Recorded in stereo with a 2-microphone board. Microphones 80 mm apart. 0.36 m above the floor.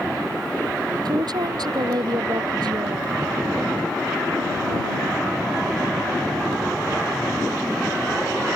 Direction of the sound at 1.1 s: 65° right (ahead or behind).